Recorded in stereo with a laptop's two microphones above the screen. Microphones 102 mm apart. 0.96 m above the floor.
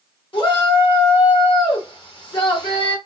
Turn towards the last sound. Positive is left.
turn(degrees=55)  # may be behind; listen again after turning